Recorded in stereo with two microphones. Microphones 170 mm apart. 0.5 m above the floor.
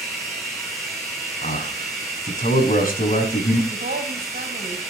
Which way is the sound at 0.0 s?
Centre (ahead or behind).